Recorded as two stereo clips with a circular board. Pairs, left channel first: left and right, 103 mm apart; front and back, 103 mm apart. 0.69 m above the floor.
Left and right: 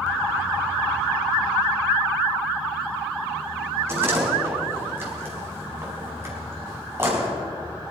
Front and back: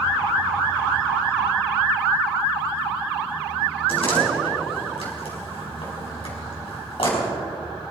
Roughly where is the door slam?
Ahead right.